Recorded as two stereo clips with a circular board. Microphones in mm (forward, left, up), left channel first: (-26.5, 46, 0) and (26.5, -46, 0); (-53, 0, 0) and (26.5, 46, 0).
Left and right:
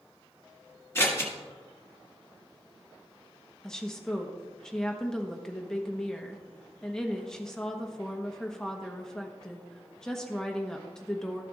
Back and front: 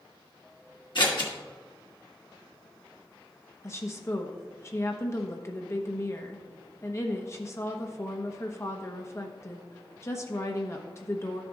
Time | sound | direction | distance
0.9 | scissors | 175° right | 1.8 m
3.6 | a woman speaking | 160° right | 1.0 m